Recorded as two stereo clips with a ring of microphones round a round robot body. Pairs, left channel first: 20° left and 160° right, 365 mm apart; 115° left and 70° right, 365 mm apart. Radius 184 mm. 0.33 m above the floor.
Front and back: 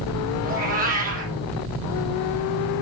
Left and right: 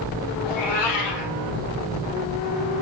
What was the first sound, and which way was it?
A cat meowing, 135° left.